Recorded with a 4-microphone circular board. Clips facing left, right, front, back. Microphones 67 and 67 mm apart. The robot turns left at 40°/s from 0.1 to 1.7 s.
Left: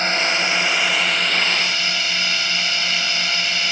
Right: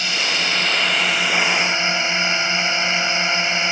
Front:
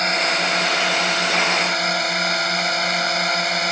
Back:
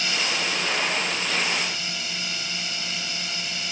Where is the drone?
40° left; by 3.7 s 25° right.